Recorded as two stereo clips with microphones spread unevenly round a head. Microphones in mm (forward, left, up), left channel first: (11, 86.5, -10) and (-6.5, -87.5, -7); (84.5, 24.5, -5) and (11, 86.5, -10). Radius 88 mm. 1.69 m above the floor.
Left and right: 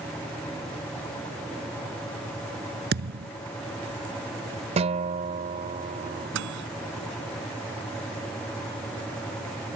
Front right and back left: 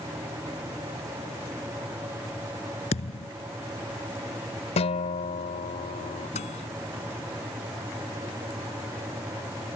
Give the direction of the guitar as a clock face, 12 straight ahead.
1 o'clock.